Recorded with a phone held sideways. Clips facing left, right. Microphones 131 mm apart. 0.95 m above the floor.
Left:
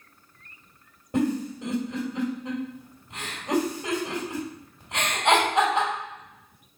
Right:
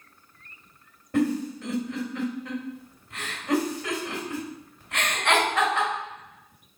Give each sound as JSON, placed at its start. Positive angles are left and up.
{"t": 1.1, "sound": "a giggle", "side_deg": 15, "distance_m": 2.5}